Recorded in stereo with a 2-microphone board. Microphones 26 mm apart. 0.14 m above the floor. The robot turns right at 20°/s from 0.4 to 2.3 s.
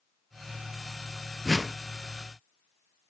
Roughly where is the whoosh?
Centre.